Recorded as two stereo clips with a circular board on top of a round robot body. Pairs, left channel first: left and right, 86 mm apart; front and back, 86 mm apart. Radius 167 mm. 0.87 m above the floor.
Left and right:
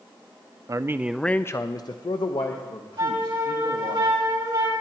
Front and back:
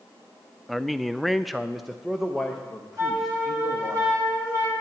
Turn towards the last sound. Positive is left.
turn(degrees=-130)